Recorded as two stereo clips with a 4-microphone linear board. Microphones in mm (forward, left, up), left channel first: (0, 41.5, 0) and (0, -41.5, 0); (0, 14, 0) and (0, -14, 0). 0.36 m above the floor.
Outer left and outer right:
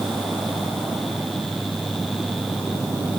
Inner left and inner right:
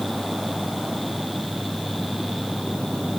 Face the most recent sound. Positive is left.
No sound to turn to.